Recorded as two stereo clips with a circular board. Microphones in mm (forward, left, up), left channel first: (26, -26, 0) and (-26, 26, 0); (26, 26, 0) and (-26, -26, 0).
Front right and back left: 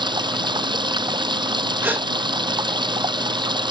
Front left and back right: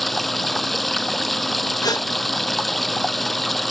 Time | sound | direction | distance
0.0 | running water | 135° left | ?
1.8 | a gasp | 70° left | ?